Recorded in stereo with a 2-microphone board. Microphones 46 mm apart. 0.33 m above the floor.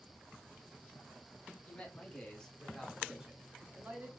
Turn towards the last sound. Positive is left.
turn(degrees=-40)  # may be behind; listen again after turning